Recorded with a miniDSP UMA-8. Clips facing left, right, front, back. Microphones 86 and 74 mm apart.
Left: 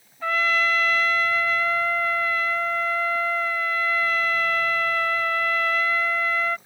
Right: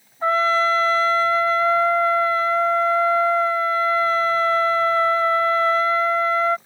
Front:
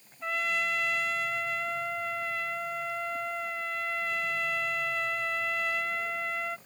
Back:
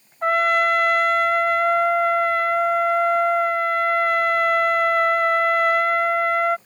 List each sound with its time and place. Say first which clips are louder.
0.2 s a trumpet: right 5 dB, back 13 dB; 145° right